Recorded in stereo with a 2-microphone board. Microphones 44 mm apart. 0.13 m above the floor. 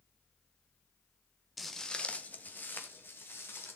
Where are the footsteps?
Centre (ahead or behind), 1.2 m; by 3.8 s 55° left (ahead or behind), 4 m.